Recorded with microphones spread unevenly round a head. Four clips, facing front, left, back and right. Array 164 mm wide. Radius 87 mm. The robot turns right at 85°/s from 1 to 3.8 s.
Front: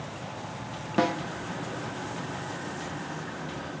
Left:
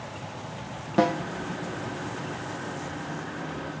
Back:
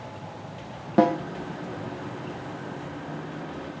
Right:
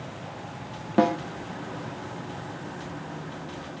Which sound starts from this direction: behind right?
A snare drum, at 1.0 s.